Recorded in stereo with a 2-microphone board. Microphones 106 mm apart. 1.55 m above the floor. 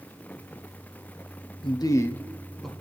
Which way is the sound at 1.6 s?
50° left (ahead or behind).